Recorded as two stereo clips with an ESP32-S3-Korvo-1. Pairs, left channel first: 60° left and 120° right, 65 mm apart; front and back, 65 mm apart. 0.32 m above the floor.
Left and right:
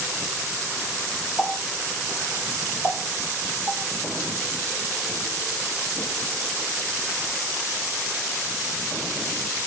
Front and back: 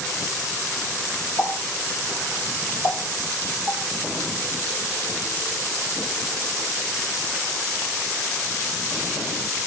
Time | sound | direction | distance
1.4 | a running tap | 10° left | 6 m